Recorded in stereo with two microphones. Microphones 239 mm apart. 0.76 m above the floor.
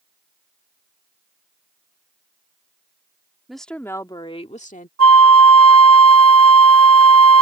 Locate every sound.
3.5 s a woman speaking: centre (ahead or behind); by 4.9 s 35° left (ahead or behind)
5.0 s a flute: 75° right (ahead or behind)